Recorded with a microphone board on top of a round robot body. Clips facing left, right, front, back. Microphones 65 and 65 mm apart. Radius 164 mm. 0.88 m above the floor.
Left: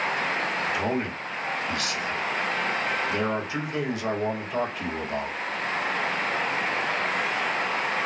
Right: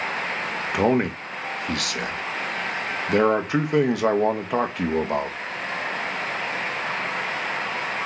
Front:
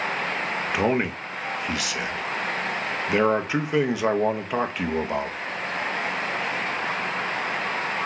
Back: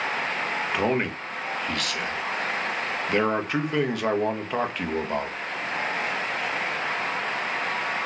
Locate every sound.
0.7 s a man speaking: 85° right, 0.8 m